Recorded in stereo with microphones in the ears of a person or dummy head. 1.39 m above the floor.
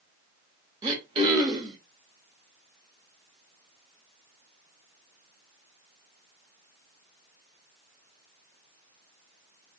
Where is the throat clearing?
25° right (ahead or behind), 1.1 m.